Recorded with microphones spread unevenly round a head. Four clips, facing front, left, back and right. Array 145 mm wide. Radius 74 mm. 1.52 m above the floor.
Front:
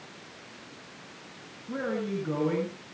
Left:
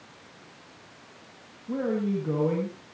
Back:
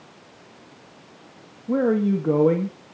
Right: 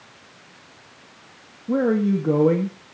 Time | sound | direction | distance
1.7 | a man speaking | 125° right | 2 m